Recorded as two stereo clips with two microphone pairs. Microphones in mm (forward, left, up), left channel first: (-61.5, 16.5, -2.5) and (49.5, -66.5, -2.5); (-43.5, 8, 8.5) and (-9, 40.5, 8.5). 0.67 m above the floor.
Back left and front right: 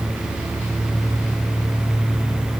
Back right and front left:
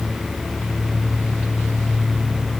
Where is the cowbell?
I don't hear a cowbell.